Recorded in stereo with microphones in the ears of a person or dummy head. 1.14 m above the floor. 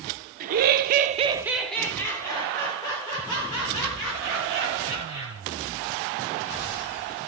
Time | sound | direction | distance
0.4 | laughter | 45° right (ahead or behind) | 0.8 m